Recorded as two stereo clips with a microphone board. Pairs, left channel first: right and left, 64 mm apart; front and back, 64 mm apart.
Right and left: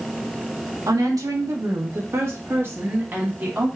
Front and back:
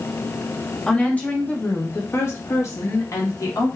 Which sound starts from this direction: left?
A woman speaking, at 0.9 s.